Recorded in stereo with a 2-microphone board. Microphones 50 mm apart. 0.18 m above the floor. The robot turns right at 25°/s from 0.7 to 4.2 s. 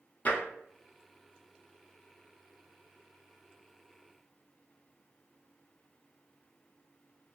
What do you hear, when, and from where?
0.2 s tapping: 35° left (ahead or behind), 0.7 m